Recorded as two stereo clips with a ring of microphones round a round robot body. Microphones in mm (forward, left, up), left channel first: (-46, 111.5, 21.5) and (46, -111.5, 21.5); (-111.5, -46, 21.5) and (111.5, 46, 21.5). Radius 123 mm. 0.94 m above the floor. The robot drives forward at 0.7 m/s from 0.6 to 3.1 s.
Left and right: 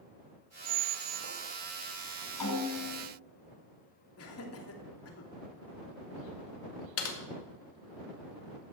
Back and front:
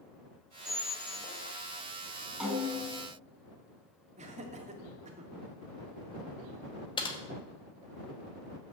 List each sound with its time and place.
0.7 s a squeak: 65° right, 0.8 m; by 1.6 s 115° right, 0.8 m
2.4 s a snare drum: 110° left, 5.5 m; by 3.0 s 115° left, 6 m
4.2 s laughter: 85° left, 2.5 m
7.0 s typing on a keyboard: 135° left, 2.0 m